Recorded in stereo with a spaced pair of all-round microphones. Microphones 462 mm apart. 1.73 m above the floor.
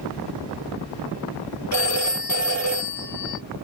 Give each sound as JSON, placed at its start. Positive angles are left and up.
{"t": 1.7, "sound": "a phone ringing", "side_deg": 40, "distance_m": 2.5}